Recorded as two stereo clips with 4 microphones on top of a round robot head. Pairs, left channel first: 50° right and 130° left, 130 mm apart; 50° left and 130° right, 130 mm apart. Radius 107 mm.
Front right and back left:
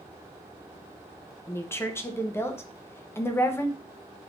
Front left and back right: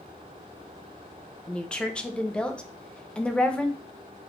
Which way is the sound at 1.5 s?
20° right.